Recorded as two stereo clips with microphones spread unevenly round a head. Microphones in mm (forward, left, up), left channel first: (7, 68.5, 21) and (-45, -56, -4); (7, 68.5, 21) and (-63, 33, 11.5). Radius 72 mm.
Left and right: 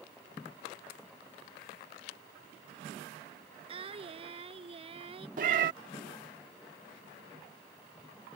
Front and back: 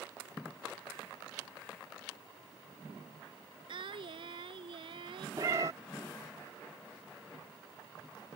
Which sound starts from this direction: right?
A cat meowing, at 5.4 s.